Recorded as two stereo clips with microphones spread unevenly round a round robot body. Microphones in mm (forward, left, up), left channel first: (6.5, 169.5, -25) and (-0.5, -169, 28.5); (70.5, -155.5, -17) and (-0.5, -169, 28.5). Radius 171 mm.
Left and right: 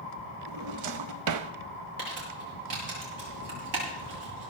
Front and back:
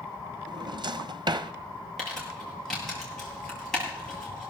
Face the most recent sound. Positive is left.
turn(degrees=-75)